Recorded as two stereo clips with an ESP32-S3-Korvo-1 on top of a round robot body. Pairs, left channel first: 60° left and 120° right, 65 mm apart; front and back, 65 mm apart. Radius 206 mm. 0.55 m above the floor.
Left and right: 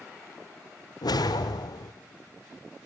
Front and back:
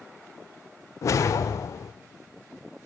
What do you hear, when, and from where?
1.0 s a whoosh: 45° left, 0.5 m